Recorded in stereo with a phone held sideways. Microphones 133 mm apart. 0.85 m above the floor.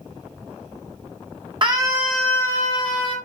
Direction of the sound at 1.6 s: 40° right (ahead or behind).